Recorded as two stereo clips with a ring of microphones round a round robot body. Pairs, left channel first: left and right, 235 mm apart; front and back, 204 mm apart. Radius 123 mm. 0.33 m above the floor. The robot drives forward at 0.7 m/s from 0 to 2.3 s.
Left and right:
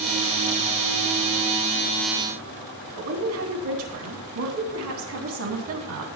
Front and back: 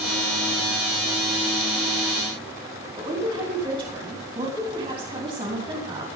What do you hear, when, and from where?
3.0 s a woman speaking: 110° right, 3 m